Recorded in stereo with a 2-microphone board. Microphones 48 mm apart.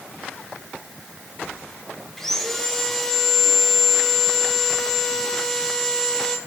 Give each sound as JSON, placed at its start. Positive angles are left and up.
{"t": 2.2, "sound": "sawing", "side_deg": 5, "distance_m": 1.2}